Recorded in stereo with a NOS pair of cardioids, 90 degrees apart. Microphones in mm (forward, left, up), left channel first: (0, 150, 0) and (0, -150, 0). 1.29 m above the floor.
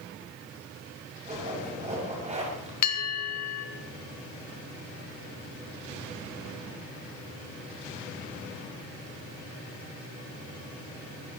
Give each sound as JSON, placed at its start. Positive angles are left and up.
{"t": 1.2, "sound": "a zipper", "azimuth_deg": -20, "distance_m": 7.5}
{"t": 2.8, "sound": "a bell", "azimuth_deg": 60, "distance_m": 3.5}